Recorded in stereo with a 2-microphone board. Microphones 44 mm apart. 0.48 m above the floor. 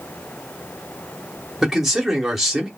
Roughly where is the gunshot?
I don't hear a gunshot.